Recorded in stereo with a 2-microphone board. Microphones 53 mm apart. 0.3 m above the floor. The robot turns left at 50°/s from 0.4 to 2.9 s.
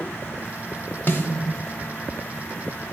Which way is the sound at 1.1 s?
40° left (ahead or behind).